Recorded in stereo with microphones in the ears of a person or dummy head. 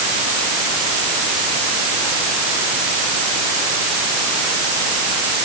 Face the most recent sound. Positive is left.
No sound to turn to.